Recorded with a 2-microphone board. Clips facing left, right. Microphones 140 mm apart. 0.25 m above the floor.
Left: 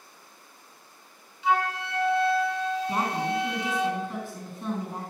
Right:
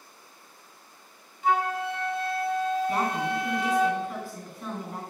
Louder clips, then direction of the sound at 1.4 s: Right 1 dB; 50° right (ahead or behind).